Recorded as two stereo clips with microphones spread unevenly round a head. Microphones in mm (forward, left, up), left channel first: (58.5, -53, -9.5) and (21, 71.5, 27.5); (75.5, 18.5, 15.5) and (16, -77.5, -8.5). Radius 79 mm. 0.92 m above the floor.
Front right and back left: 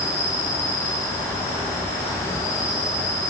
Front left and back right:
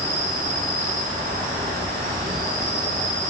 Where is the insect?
150° right, 5.5 m.